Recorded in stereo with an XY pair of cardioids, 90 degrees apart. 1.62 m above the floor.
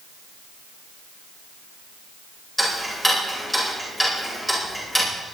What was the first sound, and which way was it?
Ticking, 10° left.